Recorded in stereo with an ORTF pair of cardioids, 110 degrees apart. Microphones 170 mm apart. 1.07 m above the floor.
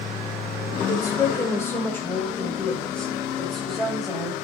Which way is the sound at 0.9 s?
20° left.